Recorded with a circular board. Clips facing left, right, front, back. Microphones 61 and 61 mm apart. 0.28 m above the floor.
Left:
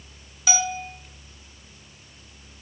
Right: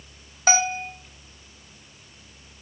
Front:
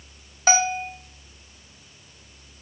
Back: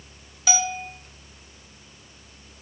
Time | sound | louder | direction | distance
0.5 | a bell | right 4 dB, front 5 dB | 45° right | 0.6 m